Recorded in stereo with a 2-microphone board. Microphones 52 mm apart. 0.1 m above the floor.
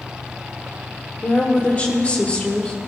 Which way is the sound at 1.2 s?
30° left (ahead or behind).